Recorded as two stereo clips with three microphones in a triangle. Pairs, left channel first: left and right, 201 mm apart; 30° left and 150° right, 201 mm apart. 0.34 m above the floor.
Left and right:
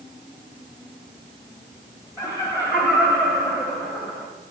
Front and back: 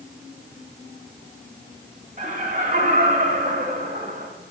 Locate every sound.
2.2 s laughter: 165° right, 1.8 m